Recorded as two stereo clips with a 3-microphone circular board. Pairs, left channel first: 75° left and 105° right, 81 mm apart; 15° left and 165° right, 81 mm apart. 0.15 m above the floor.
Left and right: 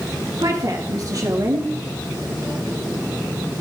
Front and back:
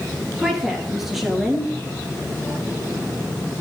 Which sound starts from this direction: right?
A woman speaking, at 0.4 s.